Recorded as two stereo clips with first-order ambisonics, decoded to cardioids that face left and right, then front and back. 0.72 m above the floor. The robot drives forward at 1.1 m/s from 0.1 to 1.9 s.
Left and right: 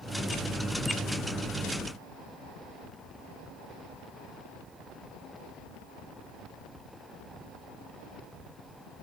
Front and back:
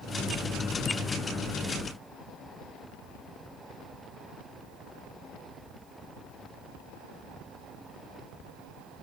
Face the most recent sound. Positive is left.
No sound to turn to.